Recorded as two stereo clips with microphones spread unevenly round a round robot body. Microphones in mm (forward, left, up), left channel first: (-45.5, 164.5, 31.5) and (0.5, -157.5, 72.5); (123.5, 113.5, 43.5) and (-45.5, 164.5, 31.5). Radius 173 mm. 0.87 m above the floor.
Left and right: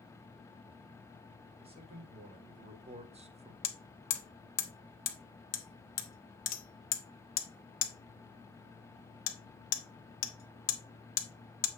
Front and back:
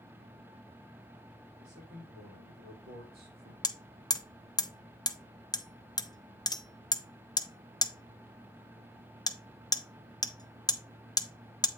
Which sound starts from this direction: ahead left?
Hammering, at 3.6 s.